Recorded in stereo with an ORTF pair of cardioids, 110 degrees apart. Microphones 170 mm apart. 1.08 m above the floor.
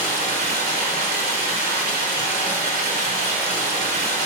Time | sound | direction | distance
0.0 | running water | 65° right | 2.5 m